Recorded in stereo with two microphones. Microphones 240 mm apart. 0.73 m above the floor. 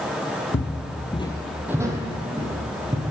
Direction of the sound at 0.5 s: 50° left (ahead or behind).